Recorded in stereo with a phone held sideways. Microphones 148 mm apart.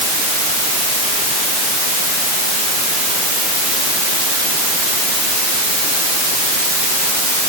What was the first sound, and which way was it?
Only background noise.